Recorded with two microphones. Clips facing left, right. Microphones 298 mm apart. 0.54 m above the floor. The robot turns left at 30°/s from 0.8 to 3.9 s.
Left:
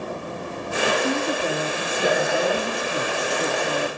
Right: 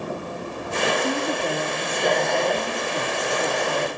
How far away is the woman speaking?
About 0.9 m.